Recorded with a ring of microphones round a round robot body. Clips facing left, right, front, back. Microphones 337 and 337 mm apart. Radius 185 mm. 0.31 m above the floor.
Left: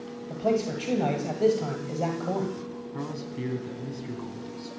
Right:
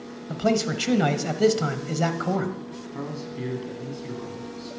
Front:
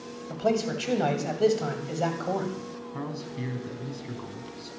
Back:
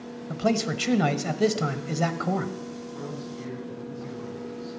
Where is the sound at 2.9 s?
20° left, 3.5 m.